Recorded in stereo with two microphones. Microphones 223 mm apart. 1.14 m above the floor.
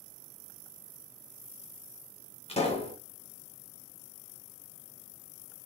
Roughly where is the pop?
Left.